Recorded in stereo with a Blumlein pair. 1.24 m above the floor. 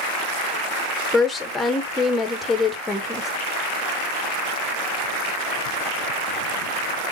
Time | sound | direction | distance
1.1 | a woman speaking | 10° left | 1.1 m